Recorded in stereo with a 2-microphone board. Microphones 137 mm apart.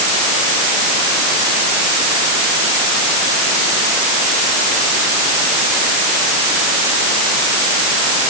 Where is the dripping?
I don't hear dripping.